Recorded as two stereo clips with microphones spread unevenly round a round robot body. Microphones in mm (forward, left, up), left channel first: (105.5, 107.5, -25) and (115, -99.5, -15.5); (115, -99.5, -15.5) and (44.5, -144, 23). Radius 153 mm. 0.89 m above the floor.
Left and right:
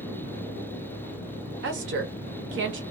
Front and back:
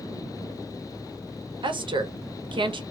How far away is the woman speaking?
About 0.8 m.